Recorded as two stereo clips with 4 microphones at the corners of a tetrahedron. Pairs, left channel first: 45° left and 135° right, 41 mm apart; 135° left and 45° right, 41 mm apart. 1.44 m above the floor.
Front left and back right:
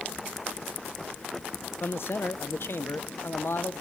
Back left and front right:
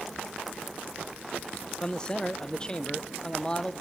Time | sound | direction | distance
1.8 | a man speaking | 65° left | 1.1 m